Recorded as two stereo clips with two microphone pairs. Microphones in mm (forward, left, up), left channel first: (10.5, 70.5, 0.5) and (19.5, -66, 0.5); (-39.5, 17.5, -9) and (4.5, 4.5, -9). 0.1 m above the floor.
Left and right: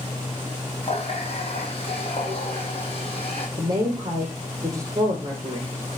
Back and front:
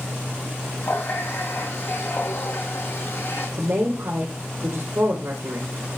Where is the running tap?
135° left, 3 m.